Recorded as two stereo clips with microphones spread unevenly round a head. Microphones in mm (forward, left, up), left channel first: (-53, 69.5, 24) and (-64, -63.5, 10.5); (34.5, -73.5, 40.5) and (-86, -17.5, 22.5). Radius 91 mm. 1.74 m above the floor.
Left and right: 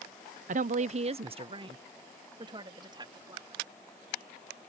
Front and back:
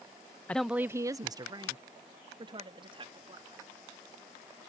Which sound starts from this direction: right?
A woman speaking, at 0.5 s.